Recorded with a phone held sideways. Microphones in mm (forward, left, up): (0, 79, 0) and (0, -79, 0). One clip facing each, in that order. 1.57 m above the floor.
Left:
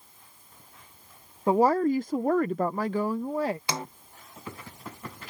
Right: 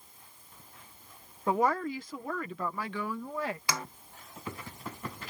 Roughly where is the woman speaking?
Left.